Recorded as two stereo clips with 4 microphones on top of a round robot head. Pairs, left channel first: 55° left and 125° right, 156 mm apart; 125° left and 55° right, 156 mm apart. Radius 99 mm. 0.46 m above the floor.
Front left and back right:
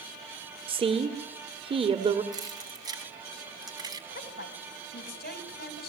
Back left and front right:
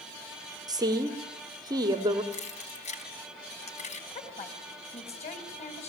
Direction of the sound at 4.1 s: 75° left.